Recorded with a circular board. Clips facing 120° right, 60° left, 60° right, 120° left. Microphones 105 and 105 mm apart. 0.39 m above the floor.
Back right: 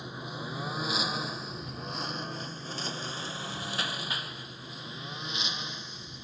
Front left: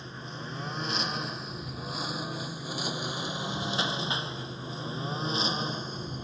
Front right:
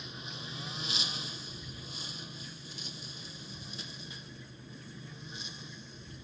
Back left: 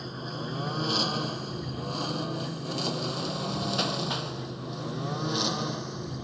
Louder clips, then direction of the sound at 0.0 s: Back right 2 dB, back left 10 dB; 165° left.